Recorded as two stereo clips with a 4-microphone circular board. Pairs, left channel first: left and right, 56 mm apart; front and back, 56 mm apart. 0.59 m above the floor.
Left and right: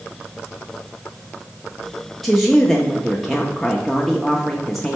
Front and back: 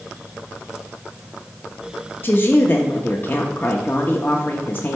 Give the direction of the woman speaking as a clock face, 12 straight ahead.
12 o'clock.